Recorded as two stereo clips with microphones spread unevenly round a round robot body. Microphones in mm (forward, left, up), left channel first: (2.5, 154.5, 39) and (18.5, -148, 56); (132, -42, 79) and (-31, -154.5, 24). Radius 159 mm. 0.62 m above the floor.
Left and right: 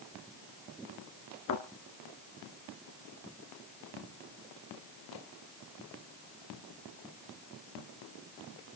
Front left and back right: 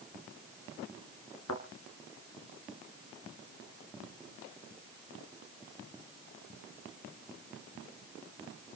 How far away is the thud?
About 3 m.